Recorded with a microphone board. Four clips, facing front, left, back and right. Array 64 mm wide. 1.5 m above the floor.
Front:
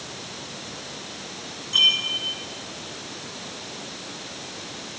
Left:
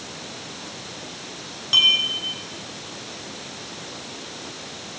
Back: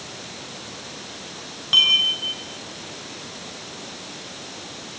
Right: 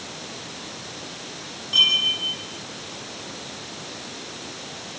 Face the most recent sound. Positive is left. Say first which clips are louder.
# left 2 dB, back 2 dB
turn(degrees=165)